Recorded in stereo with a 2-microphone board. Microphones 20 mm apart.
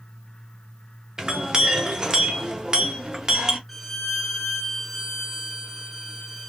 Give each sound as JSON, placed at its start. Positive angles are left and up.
{"t": 1.2, "sound": "a clink", "side_deg": -35, "distance_m": 0.5}
{"t": 3.7, "sound": "a violin", "side_deg": 10, "distance_m": 1.0}